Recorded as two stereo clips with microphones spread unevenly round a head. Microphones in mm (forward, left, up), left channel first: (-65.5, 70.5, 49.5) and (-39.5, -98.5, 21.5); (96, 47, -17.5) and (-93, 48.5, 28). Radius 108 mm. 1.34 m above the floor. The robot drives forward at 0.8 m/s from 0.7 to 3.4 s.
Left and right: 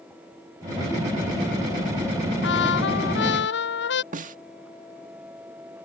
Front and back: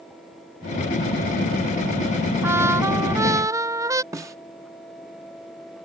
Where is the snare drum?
120° right.